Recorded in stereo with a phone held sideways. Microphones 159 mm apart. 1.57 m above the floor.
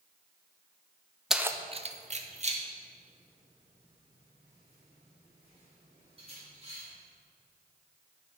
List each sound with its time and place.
1.3 s keys jangling: centre (ahead or behind), 0.5 m; by 6.8 s 35° right (ahead or behind), 5.5 m